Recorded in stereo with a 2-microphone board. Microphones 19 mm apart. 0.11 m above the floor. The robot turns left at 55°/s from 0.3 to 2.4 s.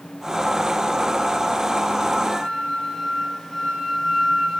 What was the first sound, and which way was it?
A flute, 20° left (ahead or behind).